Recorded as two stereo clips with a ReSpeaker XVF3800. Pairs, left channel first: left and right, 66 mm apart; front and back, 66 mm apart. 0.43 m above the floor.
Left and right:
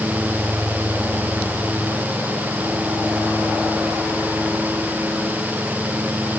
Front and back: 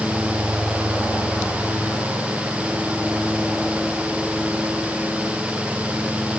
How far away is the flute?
No flute in this recording.